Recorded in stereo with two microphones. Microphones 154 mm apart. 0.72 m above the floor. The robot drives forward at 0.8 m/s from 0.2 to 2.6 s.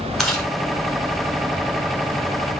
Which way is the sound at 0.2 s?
Centre (ahead or behind).